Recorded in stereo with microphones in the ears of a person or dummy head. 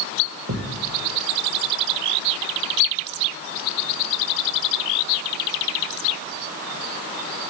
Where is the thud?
65° right (ahead or behind), 3 m.